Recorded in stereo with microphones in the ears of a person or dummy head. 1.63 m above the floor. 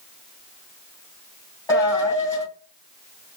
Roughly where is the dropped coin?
Centre.